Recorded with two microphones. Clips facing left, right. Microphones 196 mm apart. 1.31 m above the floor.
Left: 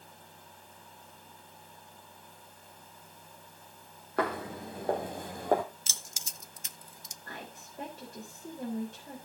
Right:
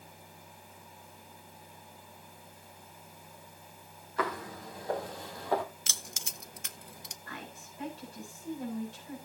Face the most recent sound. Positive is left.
turn(degrees=50)  # may be behind; listen again after turning